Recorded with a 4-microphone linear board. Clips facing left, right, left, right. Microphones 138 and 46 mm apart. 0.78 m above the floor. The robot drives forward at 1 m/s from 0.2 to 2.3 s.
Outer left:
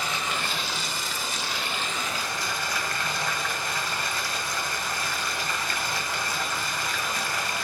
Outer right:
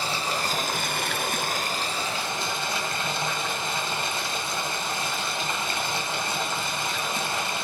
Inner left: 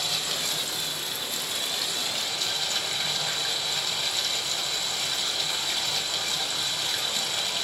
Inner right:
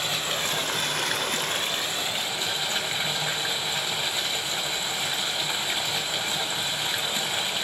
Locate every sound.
0.0 s running water: 30° right (ahead or behind), 1.1 m; by 7.6 s 25° right (ahead or behind), 1.4 m